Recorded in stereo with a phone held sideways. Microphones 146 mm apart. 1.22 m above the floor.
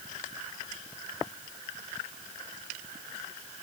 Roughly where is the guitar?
I don't hear a guitar.